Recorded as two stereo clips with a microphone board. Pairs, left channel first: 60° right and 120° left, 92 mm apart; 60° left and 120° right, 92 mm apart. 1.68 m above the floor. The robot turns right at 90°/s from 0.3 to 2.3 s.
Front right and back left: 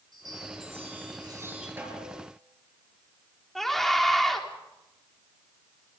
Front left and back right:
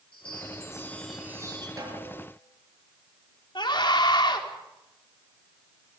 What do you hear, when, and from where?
0.1 s a chime: 80° left, 8 m; by 1.7 s 160° right, 8 m
1.8 s a snare drum: 175° right, 6.5 m; by 2.2 s 135° right, 6.5 m
3.5 s a scream: 25° left, 4.5 m